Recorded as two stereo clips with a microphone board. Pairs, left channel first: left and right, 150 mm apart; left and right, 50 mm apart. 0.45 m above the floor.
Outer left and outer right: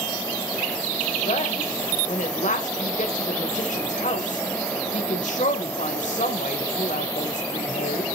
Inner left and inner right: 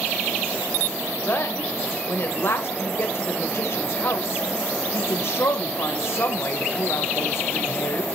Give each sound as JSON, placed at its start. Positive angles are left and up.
{"t": 1.3, "sound": "a woman speaking", "side_deg": 55, "distance_m": 1.8}